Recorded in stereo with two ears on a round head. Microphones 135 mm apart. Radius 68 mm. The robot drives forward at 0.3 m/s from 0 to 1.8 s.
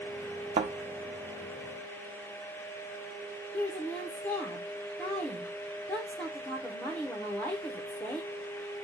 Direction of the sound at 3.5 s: 10° left (ahead or behind).